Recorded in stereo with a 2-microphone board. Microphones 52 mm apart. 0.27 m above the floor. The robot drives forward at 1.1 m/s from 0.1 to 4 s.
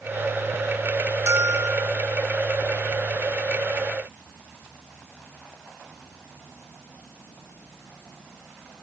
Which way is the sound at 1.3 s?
60° right (ahead or behind).